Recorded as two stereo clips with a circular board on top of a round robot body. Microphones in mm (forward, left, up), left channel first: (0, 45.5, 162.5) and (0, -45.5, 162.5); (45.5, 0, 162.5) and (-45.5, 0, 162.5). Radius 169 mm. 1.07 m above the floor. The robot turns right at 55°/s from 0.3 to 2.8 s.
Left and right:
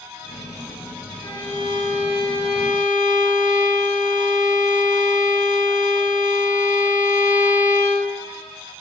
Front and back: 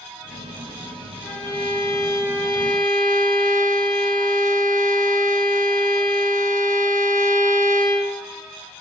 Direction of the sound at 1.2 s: 100° left.